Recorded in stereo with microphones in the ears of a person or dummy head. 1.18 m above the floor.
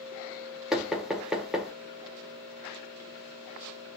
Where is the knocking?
5° right (ahead or behind), 0.5 m.